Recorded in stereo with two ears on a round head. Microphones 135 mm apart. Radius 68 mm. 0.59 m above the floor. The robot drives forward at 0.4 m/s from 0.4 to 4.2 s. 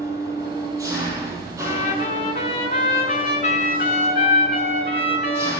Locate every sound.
0.0 s an engine running: 20° right (ahead or behind), 8 m
1.6 s a trumpet: 45° left (ahead or behind), 7 m; by 5.5 s 40° left (ahead or behind), 7.5 m